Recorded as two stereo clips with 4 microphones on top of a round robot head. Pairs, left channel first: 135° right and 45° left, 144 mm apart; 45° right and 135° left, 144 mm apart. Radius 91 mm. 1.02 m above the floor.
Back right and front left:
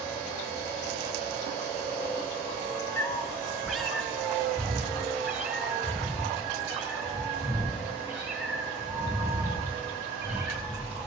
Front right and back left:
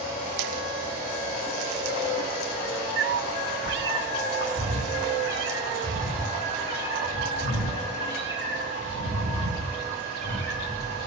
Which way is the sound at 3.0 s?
155° left.